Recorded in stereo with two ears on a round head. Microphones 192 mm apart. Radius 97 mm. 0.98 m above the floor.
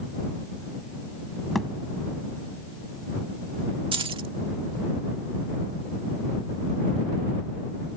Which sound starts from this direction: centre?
A thud, at 1.6 s.